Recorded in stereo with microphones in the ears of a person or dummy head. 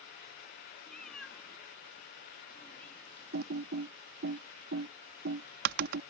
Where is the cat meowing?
5° left (ahead or behind); by 3.6 s 15° left (ahead or behind).